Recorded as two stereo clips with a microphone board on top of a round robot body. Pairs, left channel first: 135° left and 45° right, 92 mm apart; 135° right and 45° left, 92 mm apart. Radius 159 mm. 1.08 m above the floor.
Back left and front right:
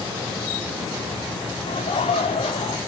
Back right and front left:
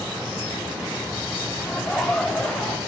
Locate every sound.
1.7 s laughter: 140° left, 3.5 m